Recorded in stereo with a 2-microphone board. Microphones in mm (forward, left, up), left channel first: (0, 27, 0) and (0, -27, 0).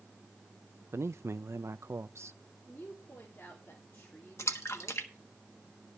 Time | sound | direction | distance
0.9 | a man speaking | 60° right (ahead or behind) | 0.6 m
2.7 | a woman speaking | 40° left (ahead or behind) | 2.5 m
4.4 | a splash | 60° left (ahead or behind) | 1.4 m